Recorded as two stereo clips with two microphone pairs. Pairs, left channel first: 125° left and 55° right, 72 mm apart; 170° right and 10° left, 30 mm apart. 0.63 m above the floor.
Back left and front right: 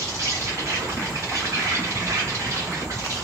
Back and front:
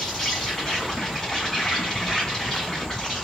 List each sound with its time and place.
0.0 s an insect: 95° right, 1.2 m